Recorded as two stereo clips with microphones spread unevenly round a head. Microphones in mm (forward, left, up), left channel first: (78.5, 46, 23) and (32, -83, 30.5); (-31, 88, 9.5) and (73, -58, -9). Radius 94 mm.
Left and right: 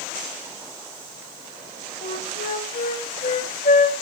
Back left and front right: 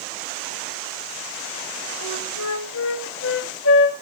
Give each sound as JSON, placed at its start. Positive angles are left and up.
{"t": 2.0, "sound": "a flute", "azimuth_deg": 115, "distance_m": 1.6}